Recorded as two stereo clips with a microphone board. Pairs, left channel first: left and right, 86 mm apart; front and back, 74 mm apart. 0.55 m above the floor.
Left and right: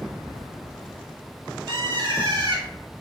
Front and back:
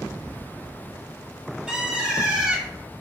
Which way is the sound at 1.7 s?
105° right.